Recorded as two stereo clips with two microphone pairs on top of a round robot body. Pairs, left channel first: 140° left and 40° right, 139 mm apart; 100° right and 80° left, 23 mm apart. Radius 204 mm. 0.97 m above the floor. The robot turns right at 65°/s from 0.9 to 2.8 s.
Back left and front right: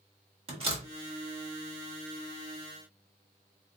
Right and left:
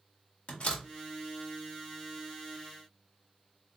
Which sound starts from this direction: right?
A door slam, at 0.5 s.